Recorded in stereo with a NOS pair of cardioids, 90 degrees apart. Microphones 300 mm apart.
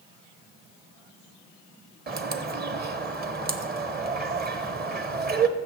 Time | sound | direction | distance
2.1 | a bird | 35° right | 1.0 m